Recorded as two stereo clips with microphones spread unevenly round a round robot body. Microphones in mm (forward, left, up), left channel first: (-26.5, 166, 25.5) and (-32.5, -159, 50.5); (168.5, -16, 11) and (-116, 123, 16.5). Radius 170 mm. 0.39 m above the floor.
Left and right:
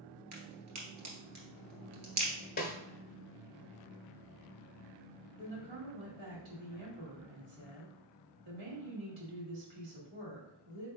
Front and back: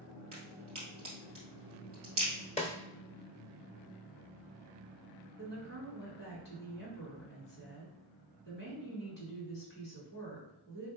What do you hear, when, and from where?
0.3 s a crack: 130° right, 2 m
2.6 s a snare drum: 40° left, 0.8 m
5.4 s a woman speaking: 85° right, 2.5 m